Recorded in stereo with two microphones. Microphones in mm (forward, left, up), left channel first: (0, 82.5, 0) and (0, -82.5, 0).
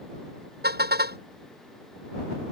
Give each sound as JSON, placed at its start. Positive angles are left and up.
{"t": 0.6, "sound": "a car horn", "side_deg": -80}